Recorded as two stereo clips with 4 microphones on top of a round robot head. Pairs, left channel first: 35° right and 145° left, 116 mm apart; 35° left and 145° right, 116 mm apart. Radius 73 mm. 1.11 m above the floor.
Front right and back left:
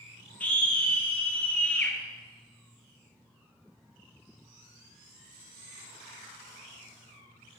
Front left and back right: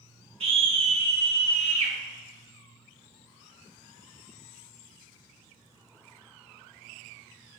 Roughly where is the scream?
Right.